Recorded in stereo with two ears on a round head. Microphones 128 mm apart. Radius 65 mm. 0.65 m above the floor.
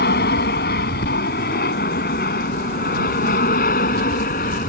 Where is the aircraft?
70° left (ahead or behind); by 4.7 s 60° left (ahead or behind).